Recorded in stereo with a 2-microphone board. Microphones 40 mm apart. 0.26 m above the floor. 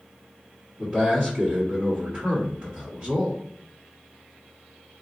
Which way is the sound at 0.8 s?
30° right (ahead or behind).